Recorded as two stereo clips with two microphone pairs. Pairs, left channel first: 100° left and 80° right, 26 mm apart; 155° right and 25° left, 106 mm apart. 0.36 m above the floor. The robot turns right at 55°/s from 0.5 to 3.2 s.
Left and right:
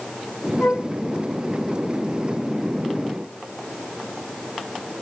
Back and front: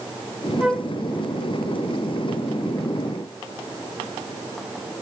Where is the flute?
110° left, 0.5 m; by 0.9 s 125° left, 0.5 m.